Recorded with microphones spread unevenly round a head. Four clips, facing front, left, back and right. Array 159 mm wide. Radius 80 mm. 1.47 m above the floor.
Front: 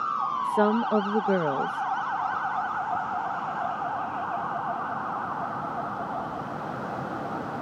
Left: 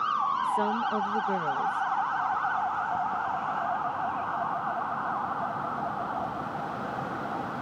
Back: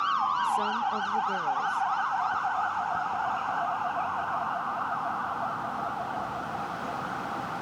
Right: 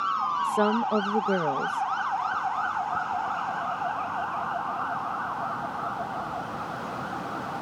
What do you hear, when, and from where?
0.4 s a woman speaking: 30° right